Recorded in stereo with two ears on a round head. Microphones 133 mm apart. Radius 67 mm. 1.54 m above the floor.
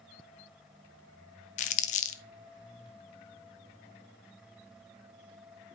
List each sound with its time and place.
1.6 s crumpling: 50° left (ahead or behind), 1.0 m